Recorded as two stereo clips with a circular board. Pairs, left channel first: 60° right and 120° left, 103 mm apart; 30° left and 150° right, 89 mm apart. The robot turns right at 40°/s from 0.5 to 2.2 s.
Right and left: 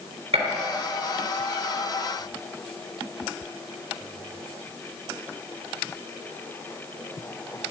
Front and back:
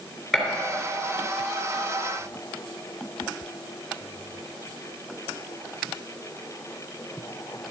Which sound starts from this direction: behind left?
A gunshot, at 0.3 s.